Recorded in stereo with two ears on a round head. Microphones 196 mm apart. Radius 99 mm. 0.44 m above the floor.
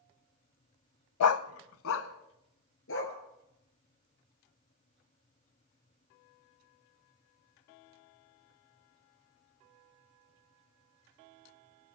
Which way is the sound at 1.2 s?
80° left.